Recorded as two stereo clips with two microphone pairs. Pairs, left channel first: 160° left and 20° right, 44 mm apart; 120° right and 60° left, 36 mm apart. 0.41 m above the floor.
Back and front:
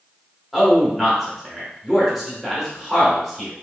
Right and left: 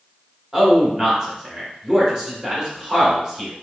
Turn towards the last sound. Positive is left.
turn(degrees=75)